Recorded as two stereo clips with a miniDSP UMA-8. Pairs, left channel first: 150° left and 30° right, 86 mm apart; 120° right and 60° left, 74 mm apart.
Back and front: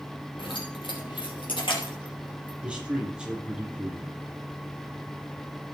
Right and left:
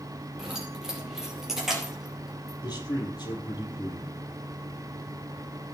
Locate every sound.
0.4 s keys jangling: 145° left, 4.5 m
2.6 s a man speaking: 110° right, 4.5 m